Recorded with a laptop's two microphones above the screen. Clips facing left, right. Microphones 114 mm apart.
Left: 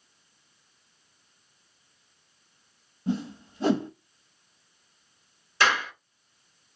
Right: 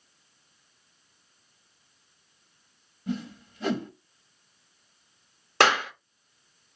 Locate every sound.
3.1 s a whoosh: 30° left (ahead or behind), 0.7 m
5.6 s a clap: 80° right, 1.3 m